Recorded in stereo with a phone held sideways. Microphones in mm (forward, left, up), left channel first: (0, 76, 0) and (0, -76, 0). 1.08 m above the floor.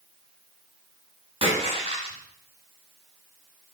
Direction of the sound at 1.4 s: 40° right (ahead or behind).